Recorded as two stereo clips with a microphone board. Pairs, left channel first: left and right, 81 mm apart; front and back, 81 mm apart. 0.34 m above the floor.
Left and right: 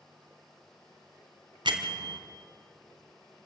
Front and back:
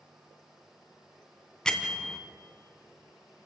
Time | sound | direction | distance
1.6 | a bell | 80° right | 1.7 m